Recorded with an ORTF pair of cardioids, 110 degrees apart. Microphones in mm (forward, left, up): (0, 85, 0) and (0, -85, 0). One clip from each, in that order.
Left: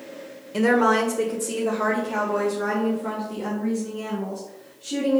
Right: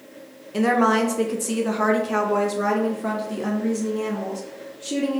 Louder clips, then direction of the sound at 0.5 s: Even; straight ahead.